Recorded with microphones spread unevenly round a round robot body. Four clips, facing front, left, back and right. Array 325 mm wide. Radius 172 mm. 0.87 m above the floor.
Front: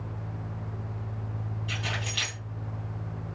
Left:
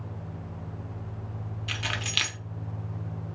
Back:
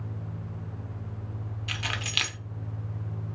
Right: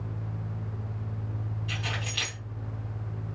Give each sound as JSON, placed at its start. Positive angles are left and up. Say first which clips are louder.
{"t": 1.7, "sound": "keys jangling", "louder": "left 3 dB, back 1 dB", "azimuth_deg": 130, "distance_m": 1.0}